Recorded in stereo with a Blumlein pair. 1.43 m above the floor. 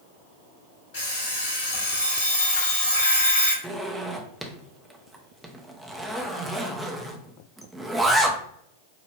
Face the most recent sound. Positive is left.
turn(degrees=-5)